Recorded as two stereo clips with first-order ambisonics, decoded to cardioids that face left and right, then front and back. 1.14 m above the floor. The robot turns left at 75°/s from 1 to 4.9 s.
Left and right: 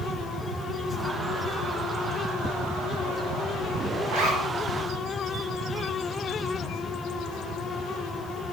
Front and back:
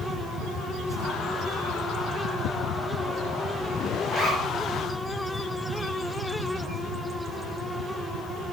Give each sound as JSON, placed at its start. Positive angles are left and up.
{"t": 4.1, "sound": "a zipper", "azimuth_deg": -105, "distance_m": 1.8}